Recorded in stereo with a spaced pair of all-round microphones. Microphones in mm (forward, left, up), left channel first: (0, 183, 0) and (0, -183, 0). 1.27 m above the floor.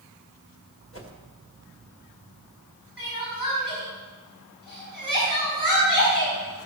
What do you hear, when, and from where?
0.9 s a whoosh: 35° left (ahead or behind), 1.6 m
3.0 s crying: 60° left (ahead or behind), 6 m